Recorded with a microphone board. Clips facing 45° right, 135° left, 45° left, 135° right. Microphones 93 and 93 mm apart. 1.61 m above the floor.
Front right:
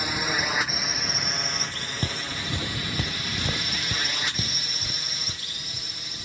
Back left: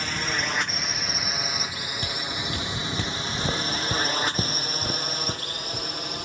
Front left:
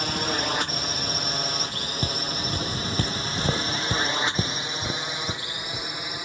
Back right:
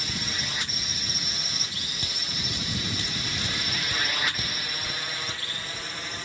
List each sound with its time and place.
0.0 s a drone: 30° left; by 6.2 s 120° left
2.0 s footsteps: straight ahead; by 5.9 s 105° left